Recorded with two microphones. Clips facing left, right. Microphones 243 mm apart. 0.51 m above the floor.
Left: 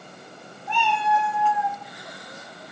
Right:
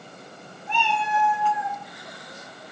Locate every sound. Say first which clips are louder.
0.7 s a cat meowing: left 3 dB; 25° right (ahead or behind), 5 m